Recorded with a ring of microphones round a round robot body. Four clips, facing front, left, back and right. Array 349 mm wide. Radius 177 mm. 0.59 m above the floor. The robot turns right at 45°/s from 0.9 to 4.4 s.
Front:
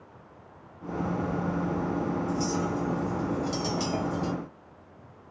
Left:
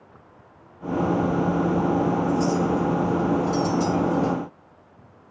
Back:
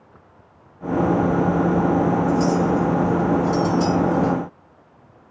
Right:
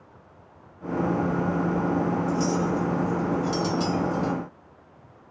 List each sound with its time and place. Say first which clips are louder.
2.3 s a clink: left 3 dB, back 10 dB; 120° right, 1.0 m; by 4.3 s 25° right, 1.0 m